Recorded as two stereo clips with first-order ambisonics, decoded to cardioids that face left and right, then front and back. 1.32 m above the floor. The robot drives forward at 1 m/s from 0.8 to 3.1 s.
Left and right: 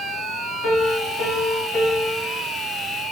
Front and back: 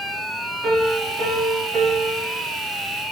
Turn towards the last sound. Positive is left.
turn(degrees=145)